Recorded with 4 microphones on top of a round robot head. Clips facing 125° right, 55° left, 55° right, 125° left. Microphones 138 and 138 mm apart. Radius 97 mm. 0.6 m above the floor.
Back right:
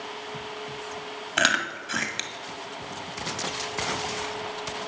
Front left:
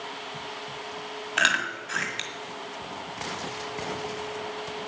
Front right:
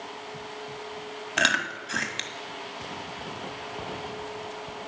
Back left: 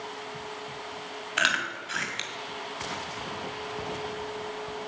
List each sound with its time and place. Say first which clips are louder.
1.4 s chewing: back right 3 dB, front right 3 dB; 85° right, 1.9 m